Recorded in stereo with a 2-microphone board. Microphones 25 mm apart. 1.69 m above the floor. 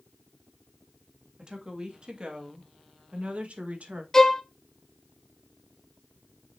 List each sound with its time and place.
1.4 s a woman speaking: 30° right (ahead or behind), 2.5 m; by 4.0 s 70° right (ahead or behind), 1.9 m
4.1 s a violin: 20° left (ahead or behind), 0.7 m